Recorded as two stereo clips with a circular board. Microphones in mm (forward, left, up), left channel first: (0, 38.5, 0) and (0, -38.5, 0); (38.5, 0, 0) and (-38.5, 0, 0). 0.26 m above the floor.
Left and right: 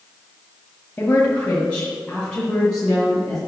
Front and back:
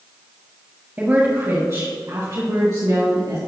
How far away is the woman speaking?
About 1.4 m.